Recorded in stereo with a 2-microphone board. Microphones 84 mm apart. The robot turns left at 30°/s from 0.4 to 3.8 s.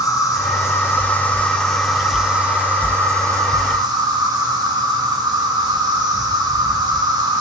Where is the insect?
45° left, 1.8 m; by 7.4 s 55° right, 1.8 m.